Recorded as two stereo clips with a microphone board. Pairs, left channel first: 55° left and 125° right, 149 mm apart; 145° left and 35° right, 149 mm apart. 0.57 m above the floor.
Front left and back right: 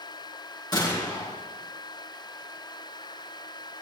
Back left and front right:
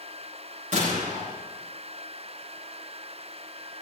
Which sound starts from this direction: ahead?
A gunshot, at 0.7 s.